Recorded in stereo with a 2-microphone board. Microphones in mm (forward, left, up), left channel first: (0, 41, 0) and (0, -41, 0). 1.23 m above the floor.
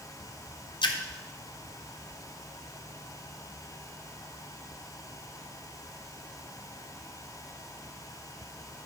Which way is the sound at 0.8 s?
70° left (ahead or behind).